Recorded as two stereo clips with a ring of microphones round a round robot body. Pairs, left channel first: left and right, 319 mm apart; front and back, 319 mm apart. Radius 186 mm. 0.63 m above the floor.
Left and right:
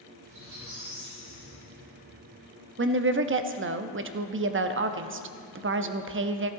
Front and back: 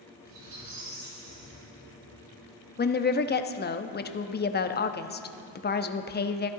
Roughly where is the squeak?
Behind right.